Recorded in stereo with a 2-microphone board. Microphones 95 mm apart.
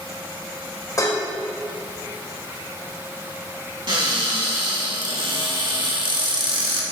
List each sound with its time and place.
1.0 s dishes clattering: 35° left (ahead or behind), 1.9 m
3.9 s a cupboard door: 55° right (ahead or behind), 1.9 m